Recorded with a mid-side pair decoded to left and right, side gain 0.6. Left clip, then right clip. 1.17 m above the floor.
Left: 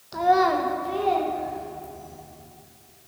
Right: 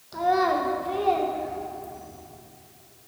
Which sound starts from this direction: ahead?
A child speaking, at 0.1 s.